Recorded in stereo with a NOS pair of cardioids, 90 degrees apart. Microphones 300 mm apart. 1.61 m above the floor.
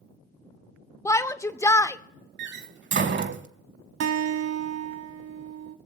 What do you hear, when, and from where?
1.1 s a shout: 10° left, 0.6 m
2.4 s a door slam: 40° right, 1.1 m
4.0 s a guitar: 60° right, 1.5 m